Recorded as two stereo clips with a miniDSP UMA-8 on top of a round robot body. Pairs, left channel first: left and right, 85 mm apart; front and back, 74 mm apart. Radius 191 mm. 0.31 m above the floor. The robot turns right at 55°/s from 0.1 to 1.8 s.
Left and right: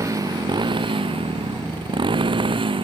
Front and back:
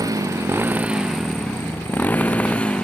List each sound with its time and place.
0.0 s a motorcycle: 140° right; by 2.9 s 80° right